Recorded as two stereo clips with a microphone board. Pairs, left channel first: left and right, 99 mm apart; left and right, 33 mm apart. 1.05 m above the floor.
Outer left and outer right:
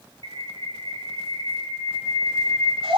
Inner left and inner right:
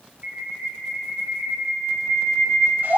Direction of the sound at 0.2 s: 60° right (ahead or behind).